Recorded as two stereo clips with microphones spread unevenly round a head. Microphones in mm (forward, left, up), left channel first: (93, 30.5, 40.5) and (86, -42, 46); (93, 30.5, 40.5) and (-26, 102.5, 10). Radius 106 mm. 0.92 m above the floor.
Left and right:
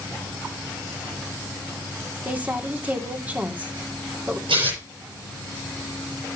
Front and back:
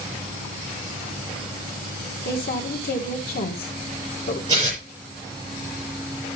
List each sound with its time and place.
2.2 s a woman speaking: 25° right, 2.5 m
4.5 s tearing paper: 140° right, 5.5 m